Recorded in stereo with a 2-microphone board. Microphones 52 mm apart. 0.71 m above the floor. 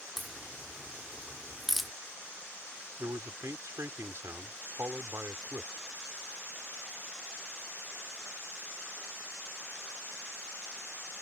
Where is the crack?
5° right (ahead or behind).